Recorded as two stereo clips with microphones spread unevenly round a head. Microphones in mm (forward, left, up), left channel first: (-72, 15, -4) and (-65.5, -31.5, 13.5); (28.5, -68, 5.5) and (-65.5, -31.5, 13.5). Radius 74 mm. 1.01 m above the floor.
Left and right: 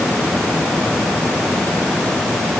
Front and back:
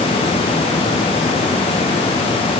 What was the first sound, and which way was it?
Only background noise.